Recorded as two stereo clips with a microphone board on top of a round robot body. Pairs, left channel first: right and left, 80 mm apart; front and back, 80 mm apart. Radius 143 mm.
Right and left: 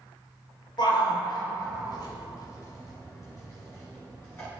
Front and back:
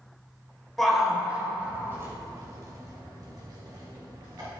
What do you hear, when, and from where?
0.8 s a shout: 85° right, 2.5 m; by 4.5 s 145° right, 6.5 m